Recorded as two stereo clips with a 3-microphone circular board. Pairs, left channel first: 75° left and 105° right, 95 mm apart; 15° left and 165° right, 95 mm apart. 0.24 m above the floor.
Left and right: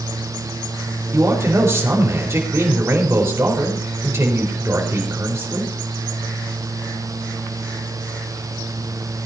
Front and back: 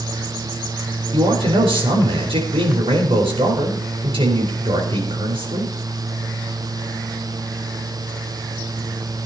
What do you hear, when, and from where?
1.1 s a man speaking: 165° right, 5.5 m